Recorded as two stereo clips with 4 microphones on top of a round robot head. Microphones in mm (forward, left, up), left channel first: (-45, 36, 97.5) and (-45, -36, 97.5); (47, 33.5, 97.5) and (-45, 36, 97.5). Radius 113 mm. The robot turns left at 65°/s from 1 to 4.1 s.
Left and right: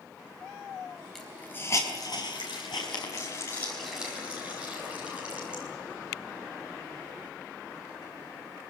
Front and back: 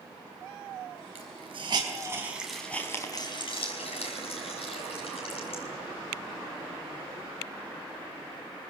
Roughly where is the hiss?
Behind.